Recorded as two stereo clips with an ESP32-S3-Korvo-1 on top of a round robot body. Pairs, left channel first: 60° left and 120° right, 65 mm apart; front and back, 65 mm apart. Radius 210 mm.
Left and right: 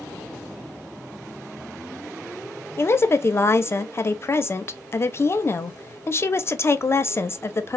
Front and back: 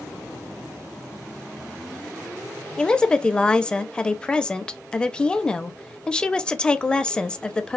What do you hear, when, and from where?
2.8 s a woman speaking: 65° left, 0.8 m